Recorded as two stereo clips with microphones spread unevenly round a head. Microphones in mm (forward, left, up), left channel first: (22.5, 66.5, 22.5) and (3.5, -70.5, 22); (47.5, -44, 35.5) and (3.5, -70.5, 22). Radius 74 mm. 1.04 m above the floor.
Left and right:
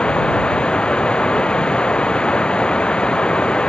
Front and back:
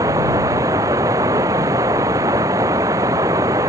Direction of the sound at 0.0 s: 165° left.